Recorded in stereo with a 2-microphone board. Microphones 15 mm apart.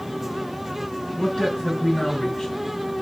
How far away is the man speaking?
About 3 m.